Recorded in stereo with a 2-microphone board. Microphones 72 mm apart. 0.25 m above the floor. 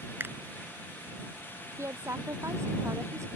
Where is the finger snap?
30° right (ahead or behind).